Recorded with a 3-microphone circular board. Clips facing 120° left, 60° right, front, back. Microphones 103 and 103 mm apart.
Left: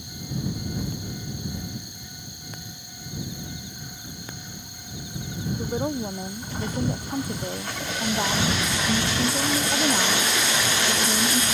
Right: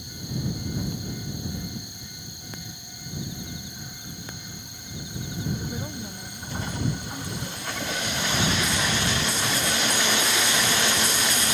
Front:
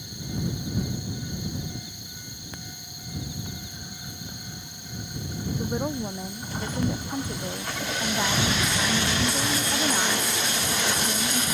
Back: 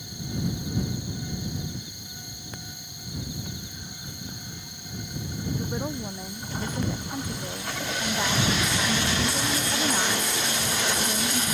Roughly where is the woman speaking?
Left.